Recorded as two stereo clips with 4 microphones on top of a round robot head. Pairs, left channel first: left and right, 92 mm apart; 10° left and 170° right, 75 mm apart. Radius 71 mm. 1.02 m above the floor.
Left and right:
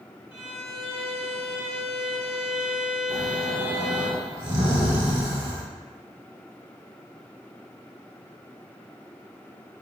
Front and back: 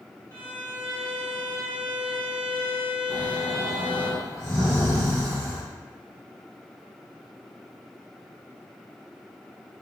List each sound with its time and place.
0.3 s a violin: 75° left, 1.5 m
3.1 s snoring: 60° right, 1.1 m